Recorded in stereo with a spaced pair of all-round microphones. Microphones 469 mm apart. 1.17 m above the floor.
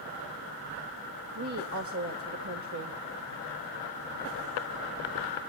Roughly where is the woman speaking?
Right.